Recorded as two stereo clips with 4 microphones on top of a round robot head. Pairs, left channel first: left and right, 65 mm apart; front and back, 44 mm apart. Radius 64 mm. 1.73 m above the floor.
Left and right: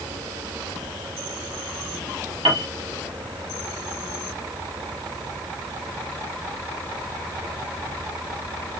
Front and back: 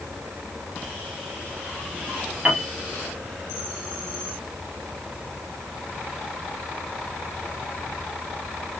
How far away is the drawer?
I don't hear a drawer.